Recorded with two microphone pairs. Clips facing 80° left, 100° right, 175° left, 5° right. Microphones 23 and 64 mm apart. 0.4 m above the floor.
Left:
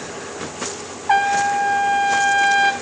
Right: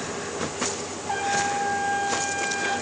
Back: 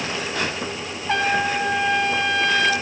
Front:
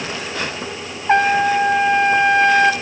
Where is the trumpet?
50° left, 1.2 m.